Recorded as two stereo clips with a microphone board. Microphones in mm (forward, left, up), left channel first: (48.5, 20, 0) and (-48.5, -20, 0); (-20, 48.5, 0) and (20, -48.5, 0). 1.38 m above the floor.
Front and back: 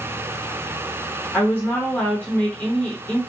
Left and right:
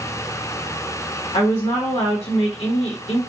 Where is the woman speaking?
95° left, 0.7 m.